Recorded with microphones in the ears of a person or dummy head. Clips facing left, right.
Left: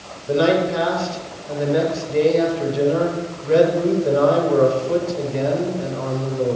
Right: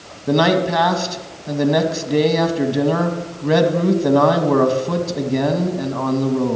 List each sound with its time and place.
0.3 s a man speaking: 90° right, 2 m